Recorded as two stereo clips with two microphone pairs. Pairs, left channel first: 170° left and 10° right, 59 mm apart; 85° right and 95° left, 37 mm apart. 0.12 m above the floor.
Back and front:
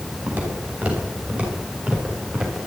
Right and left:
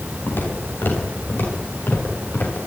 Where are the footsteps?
75° right, 9 m; by 2.6 s 90° right, 11 m.